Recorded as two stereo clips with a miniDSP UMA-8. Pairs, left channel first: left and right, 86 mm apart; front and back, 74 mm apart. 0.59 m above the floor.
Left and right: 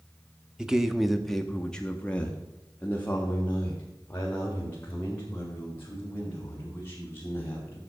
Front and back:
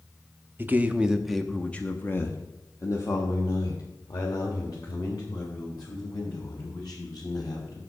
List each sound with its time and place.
0.6 s a man speaking: 160° right, 0.8 m; by 7.8 s 25° left, 3.5 m